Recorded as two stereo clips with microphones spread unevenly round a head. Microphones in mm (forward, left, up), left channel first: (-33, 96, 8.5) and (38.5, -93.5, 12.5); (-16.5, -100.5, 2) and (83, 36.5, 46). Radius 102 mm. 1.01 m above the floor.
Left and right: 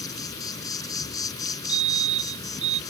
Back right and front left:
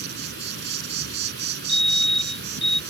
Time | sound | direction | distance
0.0 | an insect | 35° left | ?
1.7 | a fire alarm | 130° right | ?